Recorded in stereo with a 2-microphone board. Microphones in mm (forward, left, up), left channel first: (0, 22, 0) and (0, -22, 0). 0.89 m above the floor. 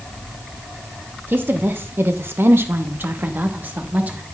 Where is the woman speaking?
55° right (ahead or behind), 1.0 m; by 4.2 s 40° right (ahead or behind), 1.5 m.